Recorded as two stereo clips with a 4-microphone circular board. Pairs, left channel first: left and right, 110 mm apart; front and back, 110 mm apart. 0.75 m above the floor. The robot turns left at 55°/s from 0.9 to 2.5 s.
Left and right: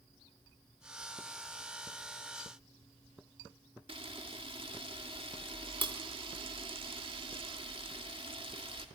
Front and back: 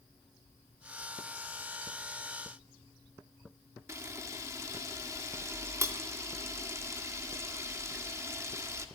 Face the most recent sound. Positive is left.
turn(degrees=-120)